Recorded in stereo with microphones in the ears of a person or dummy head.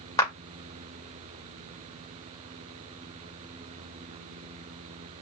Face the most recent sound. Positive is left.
turn(degrees=20)  # may be behind; listen again after turning